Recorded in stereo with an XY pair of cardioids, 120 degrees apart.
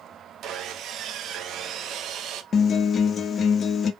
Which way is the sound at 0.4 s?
60° right.